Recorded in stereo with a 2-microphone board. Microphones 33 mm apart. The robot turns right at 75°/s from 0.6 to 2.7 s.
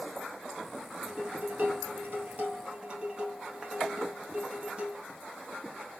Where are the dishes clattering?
150° right, 2 m; by 5.0 s 30° right, 2 m.